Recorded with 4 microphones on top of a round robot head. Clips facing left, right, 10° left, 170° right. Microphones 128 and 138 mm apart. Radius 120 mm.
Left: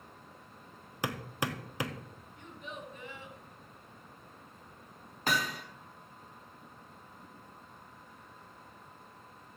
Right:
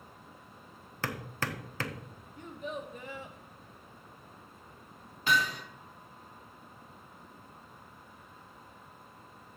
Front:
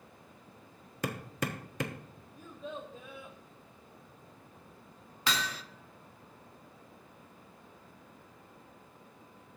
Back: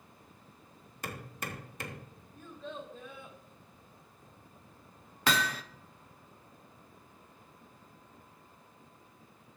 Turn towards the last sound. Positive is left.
turn(degrees=150)